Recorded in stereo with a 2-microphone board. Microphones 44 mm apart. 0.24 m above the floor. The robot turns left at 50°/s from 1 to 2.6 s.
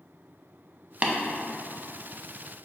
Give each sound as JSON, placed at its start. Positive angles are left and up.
{"t": 1.0, "sound": "tapping", "side_deg": -30, "distance_m": 0.5}